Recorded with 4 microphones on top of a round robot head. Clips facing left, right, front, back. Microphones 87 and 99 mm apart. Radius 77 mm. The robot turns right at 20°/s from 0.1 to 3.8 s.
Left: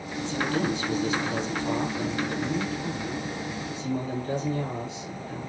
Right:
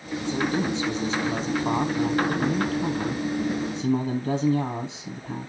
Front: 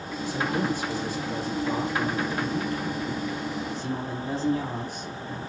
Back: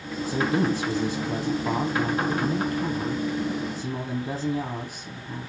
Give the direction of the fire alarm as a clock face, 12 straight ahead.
I don't hear a fire alarm.